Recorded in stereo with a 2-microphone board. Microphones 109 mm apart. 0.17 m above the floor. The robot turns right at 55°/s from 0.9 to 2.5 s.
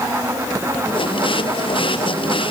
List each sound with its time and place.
Only background noise.